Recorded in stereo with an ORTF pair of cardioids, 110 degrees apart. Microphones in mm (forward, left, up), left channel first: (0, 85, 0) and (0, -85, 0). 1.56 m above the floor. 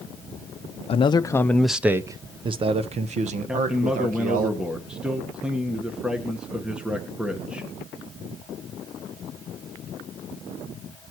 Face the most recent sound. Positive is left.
turn(degrees=-5)